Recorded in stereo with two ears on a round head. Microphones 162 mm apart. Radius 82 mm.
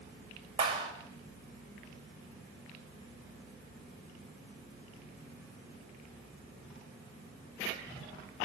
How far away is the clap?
About 8 m.